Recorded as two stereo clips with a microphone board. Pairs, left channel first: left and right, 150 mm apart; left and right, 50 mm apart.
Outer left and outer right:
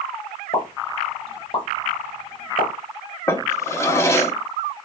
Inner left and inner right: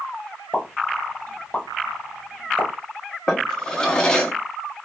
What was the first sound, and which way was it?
A pop, 35° left (ahead or behind).